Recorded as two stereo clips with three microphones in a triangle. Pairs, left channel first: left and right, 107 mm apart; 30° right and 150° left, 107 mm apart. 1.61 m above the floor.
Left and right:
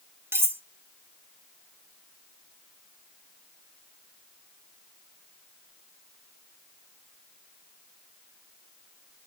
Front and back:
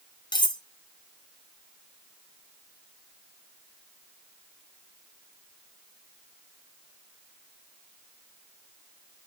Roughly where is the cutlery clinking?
Ahead right.